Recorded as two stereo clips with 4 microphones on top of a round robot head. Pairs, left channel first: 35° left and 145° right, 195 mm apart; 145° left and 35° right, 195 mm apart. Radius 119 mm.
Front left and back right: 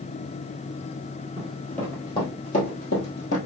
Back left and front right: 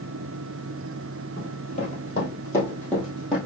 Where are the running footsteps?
140° left, 1.8 m; by 3.4 s 50° left, 2.5 m.